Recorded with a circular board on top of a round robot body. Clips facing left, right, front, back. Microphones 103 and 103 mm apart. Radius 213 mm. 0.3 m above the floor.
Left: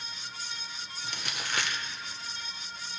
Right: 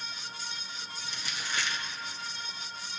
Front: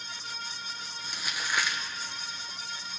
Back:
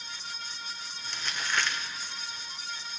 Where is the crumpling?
80° left, 1.4 m.